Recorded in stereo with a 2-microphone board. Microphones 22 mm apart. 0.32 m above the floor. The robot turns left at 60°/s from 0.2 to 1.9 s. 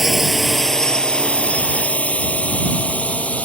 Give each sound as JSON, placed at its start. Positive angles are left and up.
{"t": 0.0, "sound": "a drone", "side_deg": -10}